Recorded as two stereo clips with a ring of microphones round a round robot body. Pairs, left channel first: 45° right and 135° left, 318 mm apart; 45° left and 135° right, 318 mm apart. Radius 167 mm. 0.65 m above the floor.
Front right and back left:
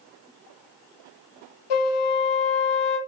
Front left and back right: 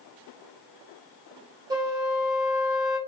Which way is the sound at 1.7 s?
55° right.